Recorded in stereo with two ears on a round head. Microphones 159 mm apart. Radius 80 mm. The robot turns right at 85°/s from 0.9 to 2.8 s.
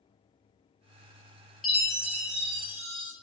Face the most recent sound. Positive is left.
turn(degrees=-80)